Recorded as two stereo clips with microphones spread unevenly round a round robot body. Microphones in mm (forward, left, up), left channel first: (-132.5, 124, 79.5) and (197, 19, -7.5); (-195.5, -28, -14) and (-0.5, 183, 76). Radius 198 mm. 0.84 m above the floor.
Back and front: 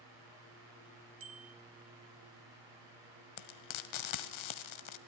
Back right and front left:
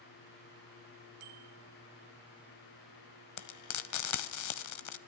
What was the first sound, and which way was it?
A bicycle bell, 35° left.